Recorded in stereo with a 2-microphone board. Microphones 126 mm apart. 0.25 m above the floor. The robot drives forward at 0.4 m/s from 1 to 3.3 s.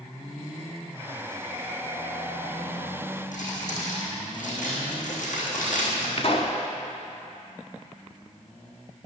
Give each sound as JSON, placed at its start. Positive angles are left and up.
{"t": 3.3, "sound": "crumpling", "side_deg": 90, "distance_m": 3.0}
{"t": 6.2, "sound": "a pop", "side_deg": 55, "distance_m": 1.0}